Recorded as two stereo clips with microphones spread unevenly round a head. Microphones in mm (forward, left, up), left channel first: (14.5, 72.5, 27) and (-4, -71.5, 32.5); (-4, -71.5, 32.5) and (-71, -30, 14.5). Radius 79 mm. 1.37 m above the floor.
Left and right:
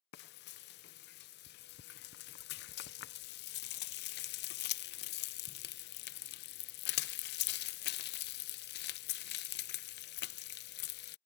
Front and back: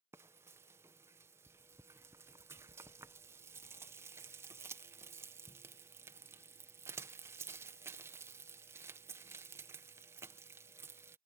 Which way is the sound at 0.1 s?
80° left.